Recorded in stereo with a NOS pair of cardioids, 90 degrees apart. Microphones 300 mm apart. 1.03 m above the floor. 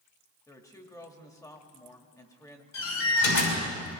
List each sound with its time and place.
0.5 s a woman speaking: 10° left, 1.9 m
2.7 s a door slam: 70° left, 6 m